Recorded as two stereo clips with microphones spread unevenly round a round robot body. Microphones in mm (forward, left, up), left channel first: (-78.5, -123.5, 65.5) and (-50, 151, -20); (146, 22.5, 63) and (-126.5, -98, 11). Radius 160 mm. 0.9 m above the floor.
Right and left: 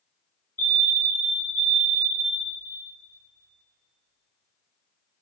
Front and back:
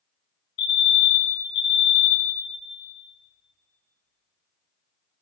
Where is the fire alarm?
Straight ahead, 2.5 m.